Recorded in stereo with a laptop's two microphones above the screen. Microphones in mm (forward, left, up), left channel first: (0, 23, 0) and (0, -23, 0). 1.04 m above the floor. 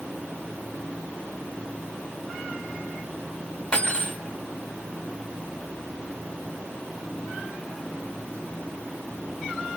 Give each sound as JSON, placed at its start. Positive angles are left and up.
{"t": 3.7, "sound": "cutlery clinking", "side_deg": 25, "distance_m": 2.0}